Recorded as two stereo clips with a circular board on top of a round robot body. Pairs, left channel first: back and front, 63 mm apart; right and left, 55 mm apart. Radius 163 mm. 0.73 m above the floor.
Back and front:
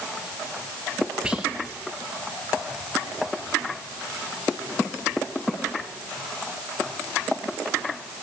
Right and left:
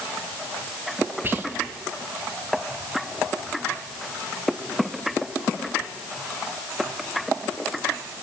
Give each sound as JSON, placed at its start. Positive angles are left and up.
{"t": 1.2, "sound": "whispering", "azimuth_deg": 65, "distance_m": 1.3}